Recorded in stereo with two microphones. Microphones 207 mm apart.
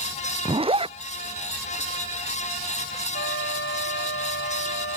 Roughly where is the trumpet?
Left.